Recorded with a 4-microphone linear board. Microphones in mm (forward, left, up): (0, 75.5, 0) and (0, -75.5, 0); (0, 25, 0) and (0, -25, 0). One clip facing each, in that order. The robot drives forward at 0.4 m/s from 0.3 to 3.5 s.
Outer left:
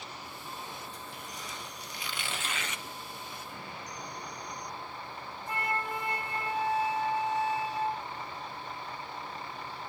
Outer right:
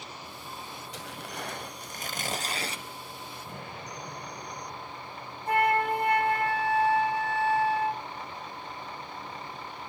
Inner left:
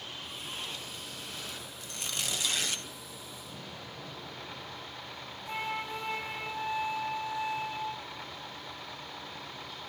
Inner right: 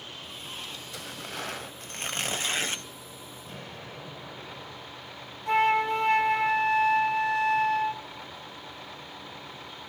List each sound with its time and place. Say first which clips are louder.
0.9 s tearing paper: outer right 4 dB, inner right 5 dB; 75° right (ahead or behind), 0.5 m; by 2.8 s 30° right (ahead or behind), 1.1 m
3.5 s an explosion: outer right 2 dB, inner right 5 dB; 45° right (ahead or behind), 7 m
5.5 s a flute: outer right 10 dB, inner right 13 dB; 55° right (ahead or behind), 1.1 m